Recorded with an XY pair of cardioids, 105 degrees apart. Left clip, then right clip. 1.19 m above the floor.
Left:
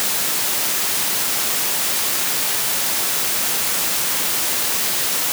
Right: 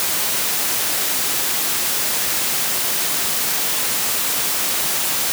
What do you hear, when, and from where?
Only background noise.